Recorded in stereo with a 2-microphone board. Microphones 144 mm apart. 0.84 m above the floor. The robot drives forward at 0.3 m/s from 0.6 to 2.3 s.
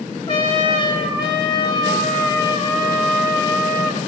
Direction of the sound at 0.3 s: 35° left (ahead or behind).